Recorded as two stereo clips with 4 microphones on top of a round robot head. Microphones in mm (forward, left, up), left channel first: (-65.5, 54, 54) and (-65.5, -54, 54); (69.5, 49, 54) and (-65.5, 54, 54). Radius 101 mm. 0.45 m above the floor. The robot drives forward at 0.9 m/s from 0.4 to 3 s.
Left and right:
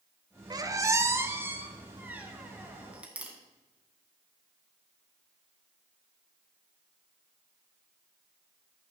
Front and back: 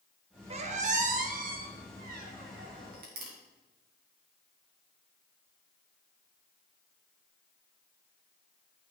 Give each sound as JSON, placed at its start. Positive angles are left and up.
{"t": 0.5, "sound": "a squeak", "azimuth_deg": -140, "distance_m": 0.9}